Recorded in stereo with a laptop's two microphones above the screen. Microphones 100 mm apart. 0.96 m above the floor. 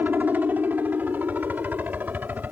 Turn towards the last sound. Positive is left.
turn(degrees=-20)  # may be behind; listen again after turning